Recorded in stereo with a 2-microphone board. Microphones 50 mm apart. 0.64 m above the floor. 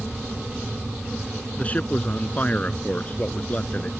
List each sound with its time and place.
1.6 s a man speaking: 30° left (ahead or behind)